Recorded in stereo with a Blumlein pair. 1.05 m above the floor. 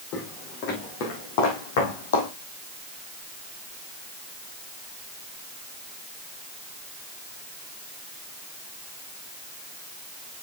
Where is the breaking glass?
No breaking glass in this recording.